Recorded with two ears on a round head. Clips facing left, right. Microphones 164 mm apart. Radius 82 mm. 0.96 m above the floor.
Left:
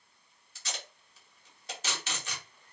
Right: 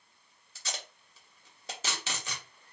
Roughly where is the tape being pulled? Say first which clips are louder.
Right 1 dB; right.